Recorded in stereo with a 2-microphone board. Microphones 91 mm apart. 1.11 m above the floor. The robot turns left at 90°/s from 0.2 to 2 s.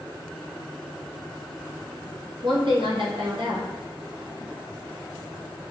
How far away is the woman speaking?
About 1.2 m.